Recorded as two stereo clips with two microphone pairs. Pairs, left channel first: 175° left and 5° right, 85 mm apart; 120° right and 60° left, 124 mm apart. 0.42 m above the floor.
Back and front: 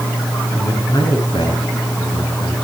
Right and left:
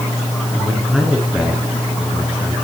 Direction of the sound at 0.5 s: 145° left.